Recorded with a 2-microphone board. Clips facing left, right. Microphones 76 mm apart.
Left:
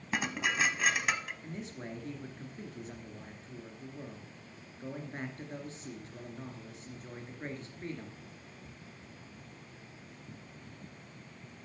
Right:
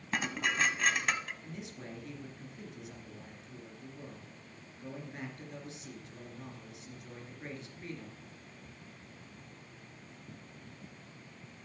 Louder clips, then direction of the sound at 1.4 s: Left 3 dB; 35° left (ahead or behind).